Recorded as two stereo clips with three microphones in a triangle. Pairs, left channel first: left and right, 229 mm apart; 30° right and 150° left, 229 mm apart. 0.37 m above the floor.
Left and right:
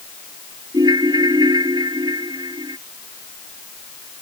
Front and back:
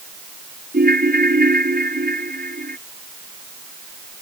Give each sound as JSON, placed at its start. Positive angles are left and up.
{"t": 0.7, "sound": "a ringtone", "azimuth_deg": -160}